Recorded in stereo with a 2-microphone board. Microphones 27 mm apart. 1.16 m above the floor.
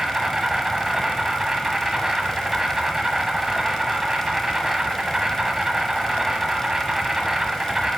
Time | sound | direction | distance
0.0 | an insect | 20° right (ahead or behind) | 1.2 m